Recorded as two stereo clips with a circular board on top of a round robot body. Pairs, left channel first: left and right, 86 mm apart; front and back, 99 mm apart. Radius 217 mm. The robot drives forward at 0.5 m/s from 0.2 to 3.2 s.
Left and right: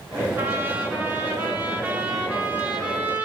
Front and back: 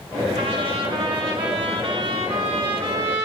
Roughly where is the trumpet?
Behind right.